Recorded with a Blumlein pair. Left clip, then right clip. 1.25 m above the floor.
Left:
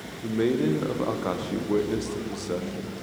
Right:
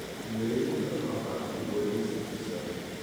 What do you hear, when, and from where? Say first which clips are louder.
0.2 s a man speaking: left 7 dB; 45° left, 0.7 m